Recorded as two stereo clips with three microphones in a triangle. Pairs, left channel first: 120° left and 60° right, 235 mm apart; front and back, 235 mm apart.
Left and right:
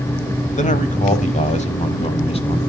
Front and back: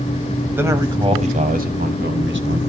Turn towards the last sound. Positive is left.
turn(degrees=180)